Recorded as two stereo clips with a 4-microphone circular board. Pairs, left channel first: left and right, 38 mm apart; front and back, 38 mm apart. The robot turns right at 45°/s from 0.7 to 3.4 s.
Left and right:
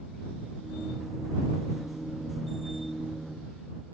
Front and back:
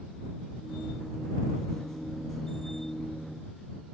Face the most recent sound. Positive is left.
No sound to turn to.